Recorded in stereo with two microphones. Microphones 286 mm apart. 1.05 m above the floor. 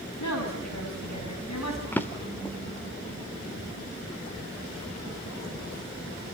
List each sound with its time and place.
0.2 s a woman speaking: 75° left (ahead or behind), 7 m; by 1.8 s 65° left (ahead or behind), 7 m
1.9 s a drawer: 5° left (ahead or behind), 1.1 m